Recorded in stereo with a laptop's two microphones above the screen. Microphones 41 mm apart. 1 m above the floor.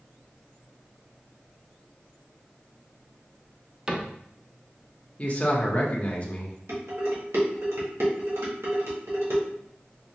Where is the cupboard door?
20° right (ahead or behind), 0.5 m.